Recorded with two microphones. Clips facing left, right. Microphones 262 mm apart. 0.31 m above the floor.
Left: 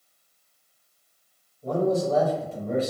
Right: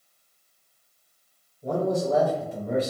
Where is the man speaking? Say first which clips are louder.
Left 2 dB; 15° right (ahead or behind), 0.9 m.